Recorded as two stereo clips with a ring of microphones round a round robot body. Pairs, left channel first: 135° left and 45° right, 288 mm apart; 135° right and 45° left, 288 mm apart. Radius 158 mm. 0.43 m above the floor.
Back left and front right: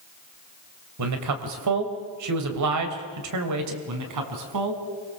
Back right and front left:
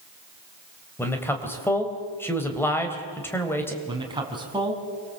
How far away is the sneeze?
I don't hear a sneeze.